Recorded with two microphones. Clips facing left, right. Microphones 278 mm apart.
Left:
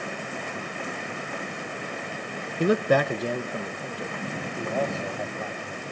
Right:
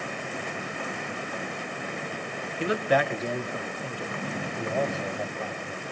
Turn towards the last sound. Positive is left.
turn(degrees=10)  # may be behind; listen again after turning